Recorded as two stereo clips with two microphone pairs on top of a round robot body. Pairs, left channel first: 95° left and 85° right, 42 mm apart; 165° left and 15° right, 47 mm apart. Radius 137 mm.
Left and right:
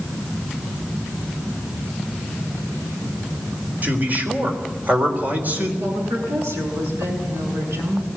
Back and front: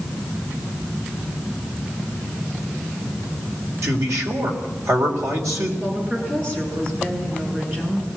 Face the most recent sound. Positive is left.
turn(degrees=-70)